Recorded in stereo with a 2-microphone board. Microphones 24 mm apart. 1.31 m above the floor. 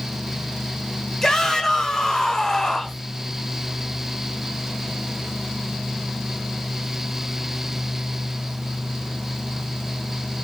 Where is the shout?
25° left (ahead or behind), 1.4 m.